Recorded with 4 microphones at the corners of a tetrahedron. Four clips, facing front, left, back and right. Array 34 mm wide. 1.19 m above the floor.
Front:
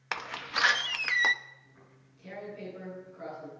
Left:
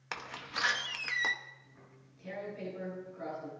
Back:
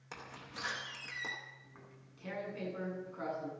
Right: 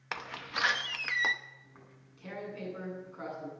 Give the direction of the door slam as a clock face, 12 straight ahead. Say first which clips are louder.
Right 2 dB, front 14 dB; 12 o'clock.